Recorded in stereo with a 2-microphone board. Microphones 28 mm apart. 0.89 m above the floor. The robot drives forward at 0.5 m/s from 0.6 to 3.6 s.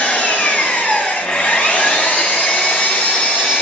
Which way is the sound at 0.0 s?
75° left (ahead or behind).